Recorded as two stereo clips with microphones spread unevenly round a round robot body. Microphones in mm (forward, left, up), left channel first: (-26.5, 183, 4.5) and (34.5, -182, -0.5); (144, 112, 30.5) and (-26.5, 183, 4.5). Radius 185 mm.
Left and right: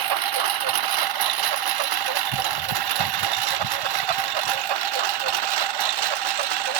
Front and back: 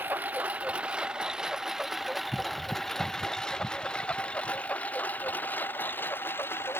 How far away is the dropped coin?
I don't hear a dropped coin.